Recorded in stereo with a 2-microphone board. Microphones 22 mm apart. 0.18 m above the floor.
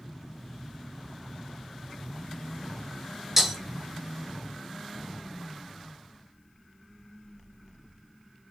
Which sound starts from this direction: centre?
Breaking glass, at 3.4 s.